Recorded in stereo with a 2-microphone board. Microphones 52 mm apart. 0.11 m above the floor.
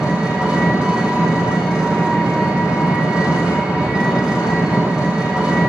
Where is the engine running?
15° right (ahead or behind), 2 m.